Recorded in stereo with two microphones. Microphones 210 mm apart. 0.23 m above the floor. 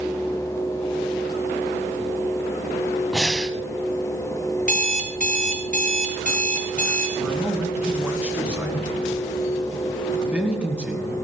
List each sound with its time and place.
3.1 s breathing: centre (ahead or behind), 1.1 m
4.6 s an alarm clock: 40° right (ahead or behind), 1.8 m
7.2 s a man speaking: 5° right (ahead or behind), 3 m